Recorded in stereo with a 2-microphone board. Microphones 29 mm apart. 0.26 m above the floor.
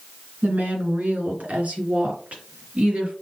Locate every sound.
0.4 s a woman speaking: 70° right (ahead or behind), 3.5 m; by 3.1 s 45° right (ahead or behind), 4 m